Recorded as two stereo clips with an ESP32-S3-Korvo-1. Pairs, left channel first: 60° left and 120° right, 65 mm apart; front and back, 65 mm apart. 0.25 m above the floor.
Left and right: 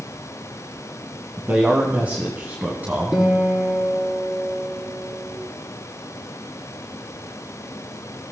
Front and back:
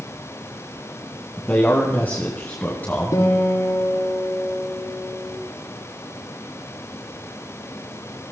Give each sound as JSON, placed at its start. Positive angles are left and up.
{"t": 1.4, "sound": "a man speaking", "azimuth_deg": -60, "distance_m": 2.0}
{"t": 3.1, "sound": "a guitar", "azimuth_deg": -30, "distance_m": 6.5}